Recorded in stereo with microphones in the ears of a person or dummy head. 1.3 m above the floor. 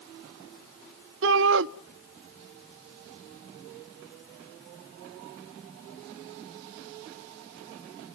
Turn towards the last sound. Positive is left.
turn(degrees=-60)  # may be behind; listen again after turning